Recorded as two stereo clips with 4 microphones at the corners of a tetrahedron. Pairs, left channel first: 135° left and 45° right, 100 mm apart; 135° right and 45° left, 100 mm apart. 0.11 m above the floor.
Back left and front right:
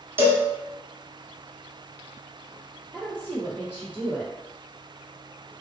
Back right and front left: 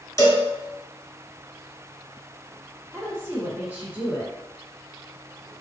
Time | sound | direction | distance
0.2 | a cowbell | 95° right | 0.9 m
2.9 | a woman speaking | 90° left | 1.4 m